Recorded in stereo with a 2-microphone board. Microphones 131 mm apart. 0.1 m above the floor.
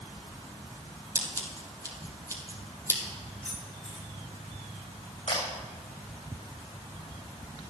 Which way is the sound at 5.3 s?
70° left (ahead or behind).